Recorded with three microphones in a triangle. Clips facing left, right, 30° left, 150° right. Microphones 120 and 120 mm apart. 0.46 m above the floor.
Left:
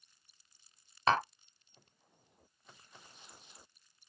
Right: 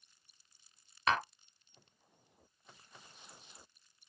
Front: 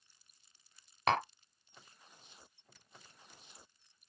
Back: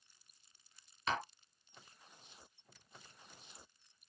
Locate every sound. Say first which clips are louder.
1.1 s tapping: left 3 dB, front 7 dB; 35° left, 0.7 m